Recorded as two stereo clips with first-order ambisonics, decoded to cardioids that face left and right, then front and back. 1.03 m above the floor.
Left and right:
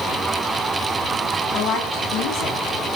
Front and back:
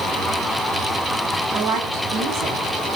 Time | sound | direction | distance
1.5 | a woman speaking | 130° left | 8 m